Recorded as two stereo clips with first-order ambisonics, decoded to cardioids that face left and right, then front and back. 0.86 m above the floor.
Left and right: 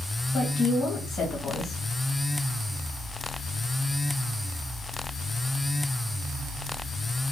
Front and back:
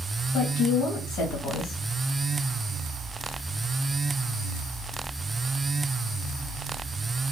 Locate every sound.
0.3 s a woman speaking: 20° left, 1.3 m